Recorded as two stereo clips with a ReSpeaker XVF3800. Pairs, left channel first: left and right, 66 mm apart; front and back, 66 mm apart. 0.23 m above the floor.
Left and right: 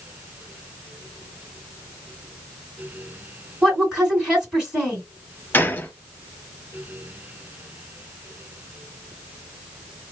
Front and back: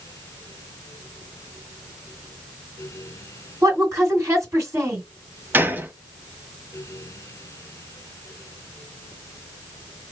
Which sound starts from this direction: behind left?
A gunshot, at 5.5 s.